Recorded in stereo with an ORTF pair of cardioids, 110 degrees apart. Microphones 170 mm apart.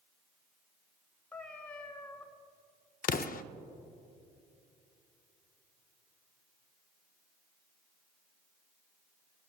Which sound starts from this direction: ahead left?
An explosion, at 3.0 s.